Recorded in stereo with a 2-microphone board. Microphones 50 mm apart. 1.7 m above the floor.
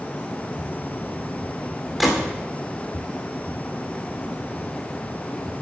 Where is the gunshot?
Centre (ahead or behind), 2.5 m.